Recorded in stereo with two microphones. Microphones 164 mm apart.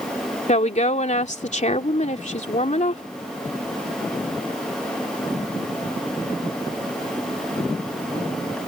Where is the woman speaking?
45° left (ahead or behind).